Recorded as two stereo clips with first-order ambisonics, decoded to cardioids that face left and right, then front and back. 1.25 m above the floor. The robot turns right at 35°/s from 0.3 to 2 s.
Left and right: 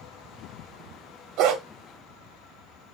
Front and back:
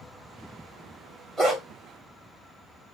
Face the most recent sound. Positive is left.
turn(degrees=-70)